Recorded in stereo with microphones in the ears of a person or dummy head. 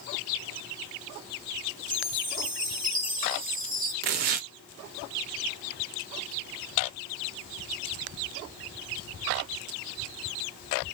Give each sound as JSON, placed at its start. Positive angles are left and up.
{"t": 1.9, "sound": "a chime", "side_deg": -35, "distance_m": 1.0}
{"t": 4.0, "sound": "tearing paper", "side_deg": -45, "distance_m": 0.5}